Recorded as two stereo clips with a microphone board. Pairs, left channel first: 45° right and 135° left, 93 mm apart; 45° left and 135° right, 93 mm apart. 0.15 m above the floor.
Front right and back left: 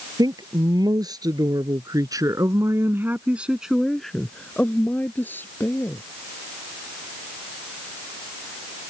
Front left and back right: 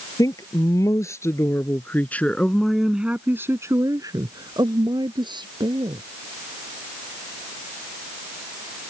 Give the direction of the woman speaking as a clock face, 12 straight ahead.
9 o'clock.